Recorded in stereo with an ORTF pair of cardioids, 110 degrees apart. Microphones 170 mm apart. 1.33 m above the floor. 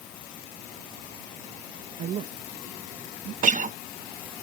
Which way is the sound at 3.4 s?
50° right.